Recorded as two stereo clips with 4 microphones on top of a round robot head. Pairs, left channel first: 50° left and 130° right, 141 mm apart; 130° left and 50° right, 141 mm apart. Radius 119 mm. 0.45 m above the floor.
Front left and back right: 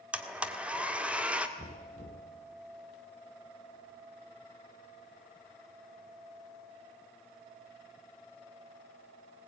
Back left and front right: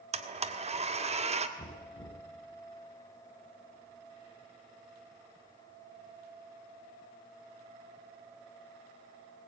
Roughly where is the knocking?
Behind.